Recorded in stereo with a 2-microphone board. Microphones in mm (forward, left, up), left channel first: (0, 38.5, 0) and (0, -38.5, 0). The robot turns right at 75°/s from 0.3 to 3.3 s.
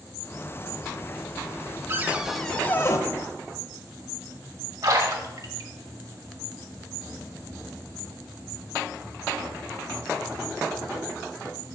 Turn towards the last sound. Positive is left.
turn(degrees=-50)  # may be behind; listen again after turning